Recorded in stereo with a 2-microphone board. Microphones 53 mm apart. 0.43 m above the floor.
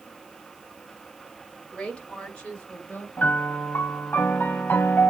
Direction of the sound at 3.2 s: 40° left (ahead or behind).